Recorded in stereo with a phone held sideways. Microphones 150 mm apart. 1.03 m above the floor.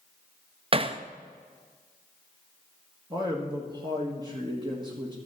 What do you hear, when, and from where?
0.7 s hammering: 35° right (ahead or behind), 0.5 m
3.1 s a man speaking: 30° right (ahead or behind), 1.5 m